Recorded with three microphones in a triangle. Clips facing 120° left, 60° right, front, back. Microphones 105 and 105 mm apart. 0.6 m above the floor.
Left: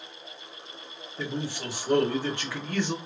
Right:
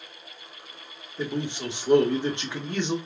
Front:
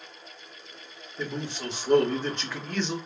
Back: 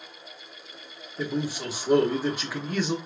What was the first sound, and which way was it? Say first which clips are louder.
A man speaking: right 3 dB, back 4 dB; 105° right.